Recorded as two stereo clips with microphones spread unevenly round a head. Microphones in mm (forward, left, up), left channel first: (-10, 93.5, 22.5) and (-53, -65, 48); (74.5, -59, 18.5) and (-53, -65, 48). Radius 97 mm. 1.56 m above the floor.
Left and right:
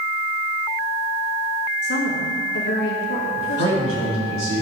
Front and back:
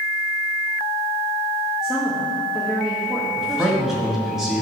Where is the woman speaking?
95° left, 1.8 m.